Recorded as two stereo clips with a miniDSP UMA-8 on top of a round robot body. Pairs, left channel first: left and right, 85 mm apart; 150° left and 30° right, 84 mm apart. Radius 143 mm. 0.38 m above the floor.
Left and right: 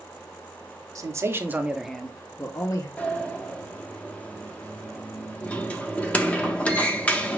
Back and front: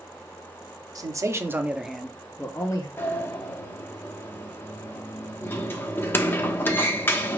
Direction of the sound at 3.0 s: 145° left.